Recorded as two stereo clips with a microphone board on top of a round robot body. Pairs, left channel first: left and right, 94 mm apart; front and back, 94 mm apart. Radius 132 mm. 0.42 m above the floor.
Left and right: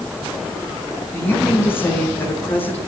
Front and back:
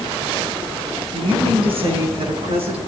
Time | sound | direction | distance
1.1 | a woman speaking | 155° left | 5 m